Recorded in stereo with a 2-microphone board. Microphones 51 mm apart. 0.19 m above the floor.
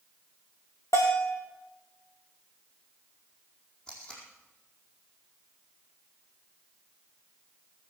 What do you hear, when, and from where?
0.9 s a bell: 90° left, 3 m
3.9 s tape being pulled: 15° left (ahead or behind), 4.5 m